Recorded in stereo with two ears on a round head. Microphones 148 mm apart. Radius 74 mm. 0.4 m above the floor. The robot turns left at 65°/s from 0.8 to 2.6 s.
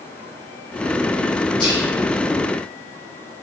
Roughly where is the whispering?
Left.